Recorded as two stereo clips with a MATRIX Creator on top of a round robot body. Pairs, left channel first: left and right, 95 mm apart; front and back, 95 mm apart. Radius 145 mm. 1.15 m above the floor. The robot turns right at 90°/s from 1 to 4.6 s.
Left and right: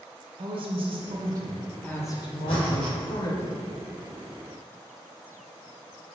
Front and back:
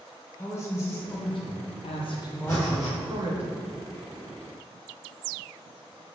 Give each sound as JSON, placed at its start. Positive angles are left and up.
{"t": 0.4, "sound": "a woman speaking", "azimuth_deg": -65, "distance_m": 0.7}
{"t": 2.5, "sound": "breathing", "azimuth_deg": 55, "distance_m": 1.0}